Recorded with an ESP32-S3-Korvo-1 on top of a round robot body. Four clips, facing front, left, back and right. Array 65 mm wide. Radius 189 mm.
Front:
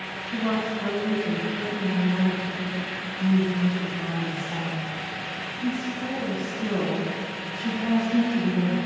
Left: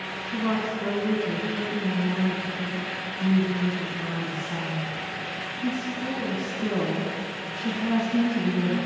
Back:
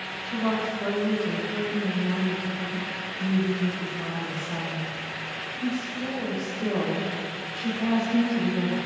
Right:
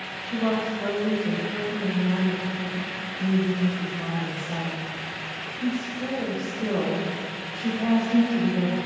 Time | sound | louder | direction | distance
0.2 | a woman speaking | right 2 dB, even | 115° right | 4 m